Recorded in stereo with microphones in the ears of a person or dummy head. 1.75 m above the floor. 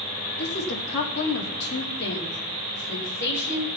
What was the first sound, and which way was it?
A woman speaking, 60° left (ahead or behind).